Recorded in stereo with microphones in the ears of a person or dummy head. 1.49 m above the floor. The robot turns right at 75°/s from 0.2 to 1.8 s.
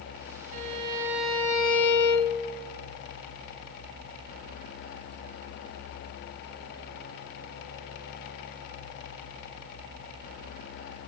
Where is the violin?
90° right, 2.0 m; by 2.3 s 10° left, 2.0 m.